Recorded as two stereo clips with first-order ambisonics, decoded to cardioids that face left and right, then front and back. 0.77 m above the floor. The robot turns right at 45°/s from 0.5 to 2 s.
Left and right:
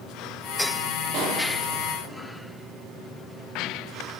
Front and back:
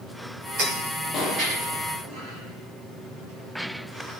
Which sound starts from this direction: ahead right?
A pop, at 1.1 s.